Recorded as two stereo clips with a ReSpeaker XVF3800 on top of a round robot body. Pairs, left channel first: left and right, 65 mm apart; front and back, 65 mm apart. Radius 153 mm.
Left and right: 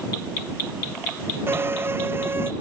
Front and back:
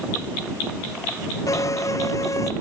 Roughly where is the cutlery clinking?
I don't hear cutlery clinking.